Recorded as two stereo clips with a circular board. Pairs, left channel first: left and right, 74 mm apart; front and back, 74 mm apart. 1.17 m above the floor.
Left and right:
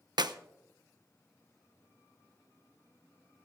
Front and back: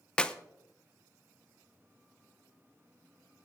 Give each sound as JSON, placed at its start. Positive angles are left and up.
{"t": 0.2, "sound": "a clap", "azimuth_deg": -75, "distance_m": 0.7}